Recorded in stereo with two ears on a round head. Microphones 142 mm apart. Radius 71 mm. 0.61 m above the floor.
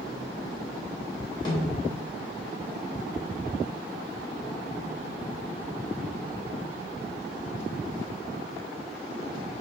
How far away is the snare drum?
About 3 m.